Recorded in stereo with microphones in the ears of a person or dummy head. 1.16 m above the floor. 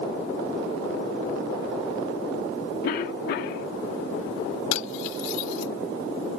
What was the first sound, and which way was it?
A cough, 60° left (ahead or behind).